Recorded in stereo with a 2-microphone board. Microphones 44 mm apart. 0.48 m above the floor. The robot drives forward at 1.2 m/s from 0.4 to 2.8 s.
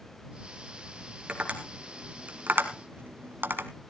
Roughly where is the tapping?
Right.